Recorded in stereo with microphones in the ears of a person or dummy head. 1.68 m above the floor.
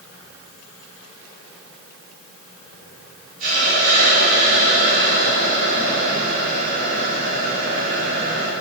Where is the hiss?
40° right (ahead or behind), 2.0 m.